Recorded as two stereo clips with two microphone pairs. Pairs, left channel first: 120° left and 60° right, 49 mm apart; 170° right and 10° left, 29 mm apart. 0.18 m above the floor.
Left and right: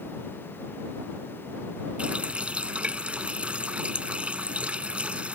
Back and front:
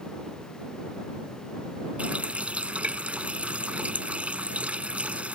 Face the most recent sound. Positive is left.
turn(degrees=-5)